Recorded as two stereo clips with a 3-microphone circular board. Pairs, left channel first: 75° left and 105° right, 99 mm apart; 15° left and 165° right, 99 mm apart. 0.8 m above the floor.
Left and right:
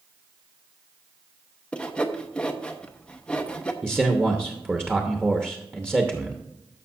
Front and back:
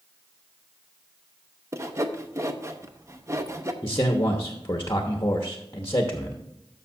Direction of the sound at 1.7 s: 150° left.